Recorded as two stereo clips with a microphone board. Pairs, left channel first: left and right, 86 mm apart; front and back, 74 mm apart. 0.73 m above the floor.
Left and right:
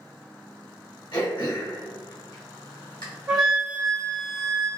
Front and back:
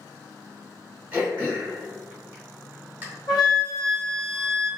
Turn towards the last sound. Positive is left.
turn(degrees=-5)